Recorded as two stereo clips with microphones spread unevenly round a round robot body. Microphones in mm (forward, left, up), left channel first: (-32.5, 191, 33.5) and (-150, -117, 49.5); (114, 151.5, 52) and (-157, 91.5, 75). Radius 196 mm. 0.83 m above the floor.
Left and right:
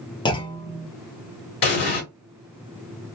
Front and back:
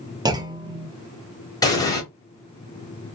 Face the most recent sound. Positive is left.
turn(degrees=90)